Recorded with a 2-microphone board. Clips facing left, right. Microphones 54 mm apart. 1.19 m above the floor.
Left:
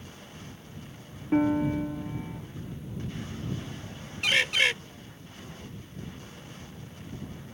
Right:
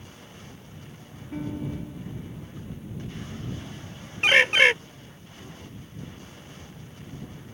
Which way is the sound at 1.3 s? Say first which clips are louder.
Left 9 dB; 65° left (ahead or behind).